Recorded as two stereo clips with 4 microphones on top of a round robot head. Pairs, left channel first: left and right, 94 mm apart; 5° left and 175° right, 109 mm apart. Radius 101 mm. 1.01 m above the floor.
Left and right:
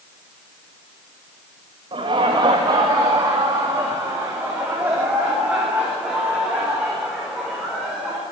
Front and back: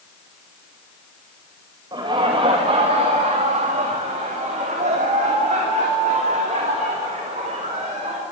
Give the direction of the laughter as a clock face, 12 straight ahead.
4 o'clock.